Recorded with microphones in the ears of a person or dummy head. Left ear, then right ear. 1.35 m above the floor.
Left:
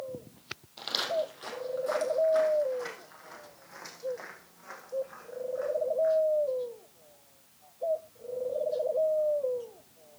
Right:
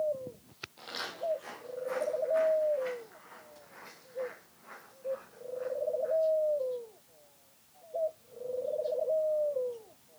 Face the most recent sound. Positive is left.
turn(degrees=40)  # may be behind; listen again after turning